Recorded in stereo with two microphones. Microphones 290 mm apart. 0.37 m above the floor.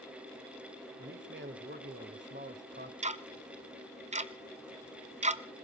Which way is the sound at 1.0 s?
40° right (ahead or behind).